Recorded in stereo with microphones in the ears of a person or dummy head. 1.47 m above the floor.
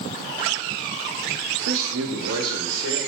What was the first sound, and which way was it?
A man speaking, 85° right.